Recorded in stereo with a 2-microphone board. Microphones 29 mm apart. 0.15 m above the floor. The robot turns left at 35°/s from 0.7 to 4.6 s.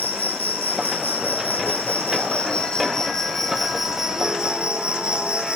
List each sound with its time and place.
0.0 s an insect: 105° left, 1.7 m; by 5.6 s 35° right, 1.7 m